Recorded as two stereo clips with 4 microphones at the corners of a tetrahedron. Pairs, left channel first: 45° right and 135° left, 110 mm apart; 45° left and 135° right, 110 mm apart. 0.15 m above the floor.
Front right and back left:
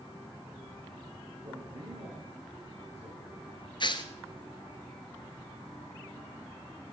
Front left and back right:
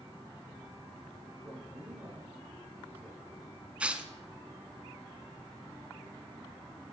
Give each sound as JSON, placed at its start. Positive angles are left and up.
{"t": 1.4, "sound": "a man speaking", "azimuth_deg": 150, "distance_m": 8.5}
{"t": 3.8, "sound": "tearing paper", "azimuth_deg": -60, "distance_m": 1.4}